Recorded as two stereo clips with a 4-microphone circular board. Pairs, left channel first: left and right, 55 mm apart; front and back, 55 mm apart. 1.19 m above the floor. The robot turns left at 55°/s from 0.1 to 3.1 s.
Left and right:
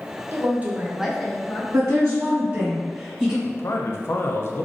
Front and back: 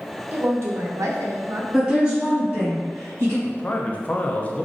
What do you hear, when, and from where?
0.3 s a woman speaking: 130° right, 0.8 m; by 1.6 s 155° left, 0.8 m
1.7 s a woman speaking: 95° right, 1.8 m; by 3.4 s 170° right, 1.8 m
3.5 s a man speaking: 60° left, 0.5 m